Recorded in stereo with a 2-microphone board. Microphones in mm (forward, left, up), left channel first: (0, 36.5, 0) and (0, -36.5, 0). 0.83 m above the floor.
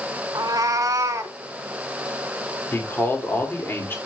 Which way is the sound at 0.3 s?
60° right (ahead or behind).